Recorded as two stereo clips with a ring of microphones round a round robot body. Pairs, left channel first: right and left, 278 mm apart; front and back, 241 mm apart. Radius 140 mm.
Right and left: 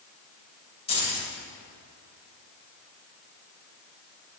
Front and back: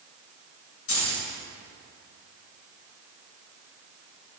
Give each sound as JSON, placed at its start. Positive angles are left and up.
{"t": 0.9, "sound": "keys jangling", "azimuth_deg": -20, "distance_m": 3.0}